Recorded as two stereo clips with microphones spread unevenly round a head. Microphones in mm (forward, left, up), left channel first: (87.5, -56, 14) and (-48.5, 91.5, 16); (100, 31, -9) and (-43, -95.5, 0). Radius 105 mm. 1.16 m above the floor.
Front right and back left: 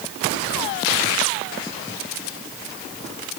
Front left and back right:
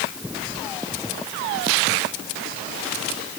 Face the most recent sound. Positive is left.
No sound to turn to.